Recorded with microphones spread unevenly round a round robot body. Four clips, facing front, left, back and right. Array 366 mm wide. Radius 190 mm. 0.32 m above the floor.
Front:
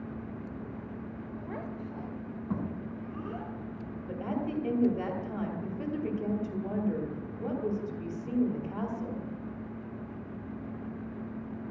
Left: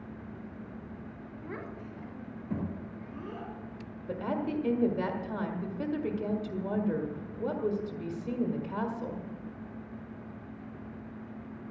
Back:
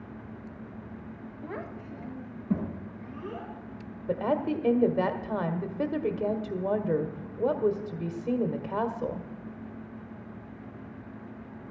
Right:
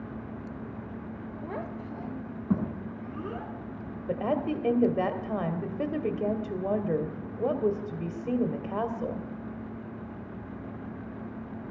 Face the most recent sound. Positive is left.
turn(degrees=-140)